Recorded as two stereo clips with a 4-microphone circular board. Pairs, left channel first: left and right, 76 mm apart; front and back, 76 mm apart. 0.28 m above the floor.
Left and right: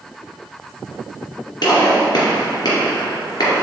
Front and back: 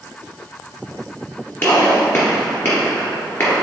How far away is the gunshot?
About 2.5 m.